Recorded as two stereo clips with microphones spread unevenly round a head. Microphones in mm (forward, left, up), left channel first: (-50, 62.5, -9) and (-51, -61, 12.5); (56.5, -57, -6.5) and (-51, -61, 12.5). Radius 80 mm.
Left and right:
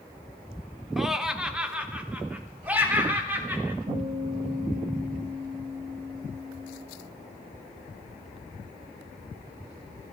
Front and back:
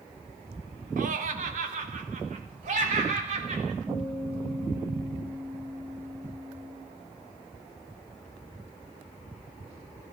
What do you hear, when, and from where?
1.0 s laughter: straight behind, 1.6 m; by 3.8 s 165° right, 4.5 m
3.9 s a guitar: 110° right, 10 m